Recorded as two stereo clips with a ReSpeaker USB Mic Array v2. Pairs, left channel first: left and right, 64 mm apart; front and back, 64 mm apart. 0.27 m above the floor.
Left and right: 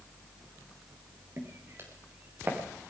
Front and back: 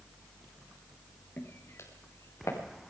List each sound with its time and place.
1.4 s footsteps: 50° right, 3.5 m; by 2.6 s 35° right, 4 m